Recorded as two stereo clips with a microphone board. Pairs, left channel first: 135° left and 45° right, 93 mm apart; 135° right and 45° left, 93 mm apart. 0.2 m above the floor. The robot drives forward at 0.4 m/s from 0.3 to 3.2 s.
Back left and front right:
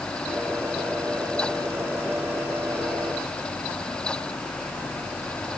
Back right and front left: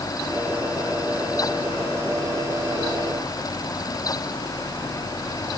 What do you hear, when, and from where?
Only background noise.